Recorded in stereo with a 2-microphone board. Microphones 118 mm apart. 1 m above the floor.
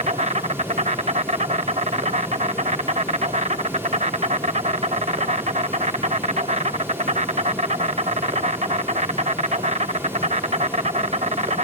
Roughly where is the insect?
Right.